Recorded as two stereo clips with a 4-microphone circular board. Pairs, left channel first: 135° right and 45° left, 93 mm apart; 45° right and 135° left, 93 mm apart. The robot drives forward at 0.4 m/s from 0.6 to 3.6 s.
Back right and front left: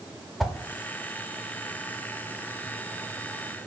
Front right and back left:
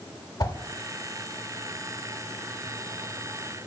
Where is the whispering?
I don't hear whispering.